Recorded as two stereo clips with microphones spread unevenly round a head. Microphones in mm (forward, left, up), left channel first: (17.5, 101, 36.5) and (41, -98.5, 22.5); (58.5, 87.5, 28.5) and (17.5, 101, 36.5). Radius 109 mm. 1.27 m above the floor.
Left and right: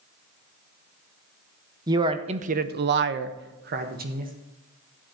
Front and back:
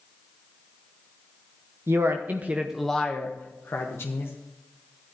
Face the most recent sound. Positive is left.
turn(degrees=-35)